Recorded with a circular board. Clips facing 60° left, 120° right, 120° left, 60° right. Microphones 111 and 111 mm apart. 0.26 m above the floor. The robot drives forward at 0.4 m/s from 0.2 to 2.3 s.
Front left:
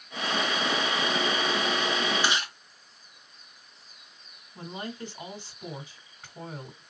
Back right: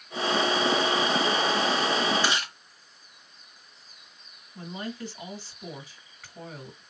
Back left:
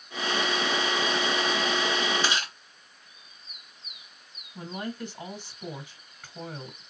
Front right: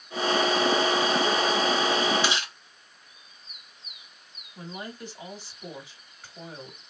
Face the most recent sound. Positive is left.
turn(degrees=120)